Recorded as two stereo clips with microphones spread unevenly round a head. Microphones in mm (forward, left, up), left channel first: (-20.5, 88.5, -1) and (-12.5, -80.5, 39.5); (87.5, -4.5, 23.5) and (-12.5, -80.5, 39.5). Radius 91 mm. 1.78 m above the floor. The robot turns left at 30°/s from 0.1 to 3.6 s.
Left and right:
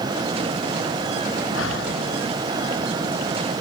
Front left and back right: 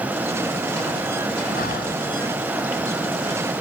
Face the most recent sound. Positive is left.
turn(degrees=15)